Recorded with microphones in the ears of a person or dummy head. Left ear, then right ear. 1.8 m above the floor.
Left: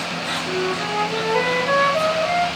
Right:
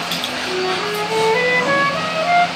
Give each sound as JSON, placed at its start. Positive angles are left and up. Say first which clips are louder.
{"t": 0.5, "sound": "a flute", "louder": "right 5 dB", "side_deg": -30, "distance_m": 2.5}